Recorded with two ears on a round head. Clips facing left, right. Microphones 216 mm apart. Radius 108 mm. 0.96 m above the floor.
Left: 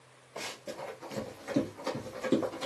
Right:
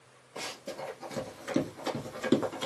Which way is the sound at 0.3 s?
15° right (ahead or behind).